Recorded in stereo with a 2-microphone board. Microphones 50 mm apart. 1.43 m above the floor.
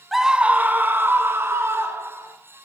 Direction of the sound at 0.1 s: Centre (ahead or behind).